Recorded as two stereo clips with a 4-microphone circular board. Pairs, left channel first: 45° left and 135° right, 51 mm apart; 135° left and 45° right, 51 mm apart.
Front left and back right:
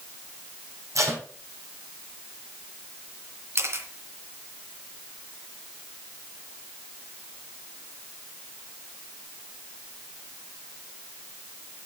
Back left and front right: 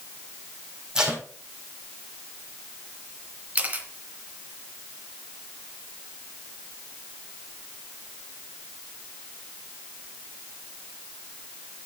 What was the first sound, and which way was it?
Tape being pulled, 120° right.